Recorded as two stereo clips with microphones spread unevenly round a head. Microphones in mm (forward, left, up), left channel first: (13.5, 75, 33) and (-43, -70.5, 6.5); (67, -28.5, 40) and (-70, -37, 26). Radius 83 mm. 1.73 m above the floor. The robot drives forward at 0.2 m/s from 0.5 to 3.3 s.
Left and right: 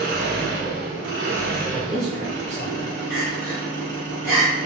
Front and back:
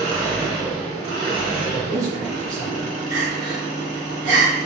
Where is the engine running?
120° right, 1.0 m; by 4.7 s 145° right, 1.4 m.